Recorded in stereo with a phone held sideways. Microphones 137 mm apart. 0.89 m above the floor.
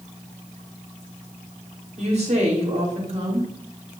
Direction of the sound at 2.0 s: 50° right (ahead or behind).